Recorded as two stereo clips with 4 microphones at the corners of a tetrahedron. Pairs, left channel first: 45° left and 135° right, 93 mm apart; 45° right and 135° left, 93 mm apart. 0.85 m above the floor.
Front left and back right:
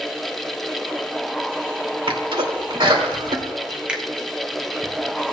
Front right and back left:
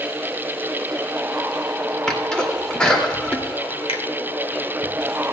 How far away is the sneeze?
About 2.5 m.